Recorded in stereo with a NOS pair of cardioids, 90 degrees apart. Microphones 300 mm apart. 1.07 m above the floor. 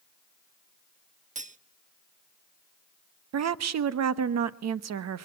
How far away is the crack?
No crack in this recording.